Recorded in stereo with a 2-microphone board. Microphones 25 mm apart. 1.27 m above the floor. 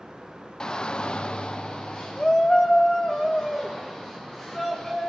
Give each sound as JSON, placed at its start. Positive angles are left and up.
{"t": 0.6, "sound": "a shout", "side_deg": 25, "distance_m": 0.6}